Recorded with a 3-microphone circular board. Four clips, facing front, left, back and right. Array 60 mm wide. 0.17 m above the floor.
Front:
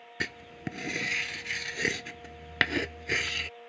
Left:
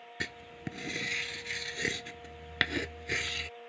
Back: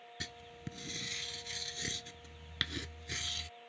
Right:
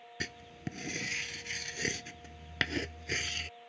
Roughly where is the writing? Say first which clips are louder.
Left 2 dB, front 12 dB; ahead.